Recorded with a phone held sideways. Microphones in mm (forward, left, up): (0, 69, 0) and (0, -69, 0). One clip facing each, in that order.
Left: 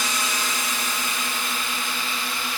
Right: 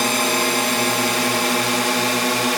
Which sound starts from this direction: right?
A drone, at 0.0 s.